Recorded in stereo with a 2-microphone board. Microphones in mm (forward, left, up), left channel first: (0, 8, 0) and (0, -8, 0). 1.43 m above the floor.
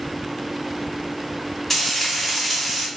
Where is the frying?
15° left (ahead or behind), 1.6 m.